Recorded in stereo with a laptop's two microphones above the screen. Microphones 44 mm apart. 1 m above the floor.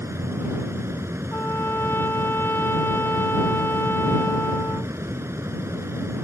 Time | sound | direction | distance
0.0 | a fan | 85° right | ?
1.3 | a trumpet | 55° left (ahead or behind) | ?